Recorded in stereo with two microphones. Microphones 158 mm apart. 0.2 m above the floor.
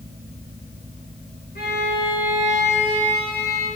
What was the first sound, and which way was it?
A violin, 75° left (ahead or behind).